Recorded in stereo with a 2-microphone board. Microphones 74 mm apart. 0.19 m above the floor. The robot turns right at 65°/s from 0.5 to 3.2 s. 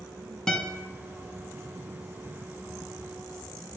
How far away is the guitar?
About 0.5 m.